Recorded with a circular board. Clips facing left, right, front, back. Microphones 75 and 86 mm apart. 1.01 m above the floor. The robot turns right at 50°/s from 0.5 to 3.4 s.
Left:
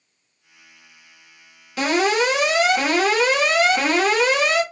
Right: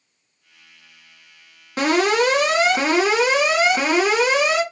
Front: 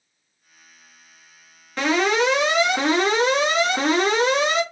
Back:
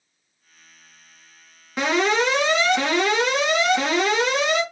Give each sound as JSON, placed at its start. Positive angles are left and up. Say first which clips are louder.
{"t": 1.8, "sound": "an alarm", "louder": "right 1 dB, front 1 dB", "azimuth_deg": -100, "distance_m": 1.5}